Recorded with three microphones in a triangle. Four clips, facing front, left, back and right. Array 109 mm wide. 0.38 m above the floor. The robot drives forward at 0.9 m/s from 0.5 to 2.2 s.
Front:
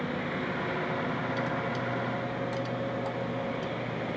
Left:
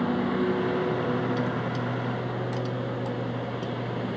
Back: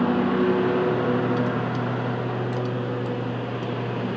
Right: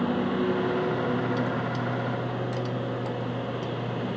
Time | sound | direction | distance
0.0 | a lawn mower | 175° left | ?